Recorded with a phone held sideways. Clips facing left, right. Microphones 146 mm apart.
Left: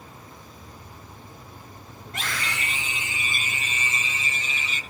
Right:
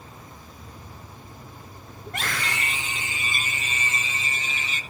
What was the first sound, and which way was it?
A scream, 65° right (ahead or behind).